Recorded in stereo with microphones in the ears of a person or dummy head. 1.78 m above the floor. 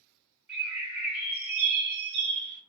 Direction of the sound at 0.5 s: Centre (ahead or behind).